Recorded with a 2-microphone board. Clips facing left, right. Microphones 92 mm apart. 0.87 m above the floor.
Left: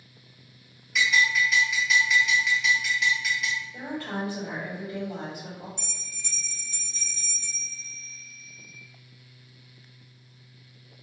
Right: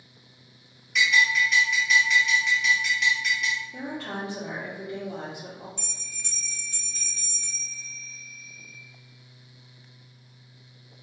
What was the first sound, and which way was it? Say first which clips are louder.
A bell: right 1 dB; centre (ahead or behind).